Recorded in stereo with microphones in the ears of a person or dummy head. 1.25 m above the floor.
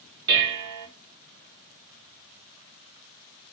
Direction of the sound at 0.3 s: 70° right (ahead or behind).